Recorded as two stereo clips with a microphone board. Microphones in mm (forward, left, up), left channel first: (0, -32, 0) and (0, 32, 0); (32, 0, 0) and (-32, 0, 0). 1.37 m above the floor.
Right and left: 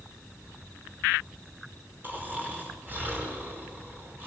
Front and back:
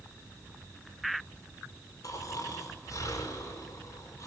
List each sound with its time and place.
2.0 s snoring: 30° left, 5 m